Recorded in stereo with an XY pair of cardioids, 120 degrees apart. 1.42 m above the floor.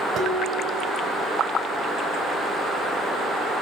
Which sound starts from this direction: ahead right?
Dishes clattering, at 0.1 s.